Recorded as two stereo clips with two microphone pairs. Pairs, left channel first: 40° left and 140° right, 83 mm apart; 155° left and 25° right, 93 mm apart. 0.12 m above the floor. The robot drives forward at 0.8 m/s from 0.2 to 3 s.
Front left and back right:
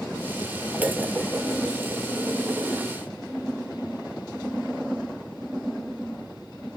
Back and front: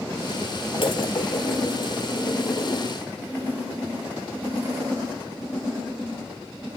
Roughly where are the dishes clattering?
Behind left.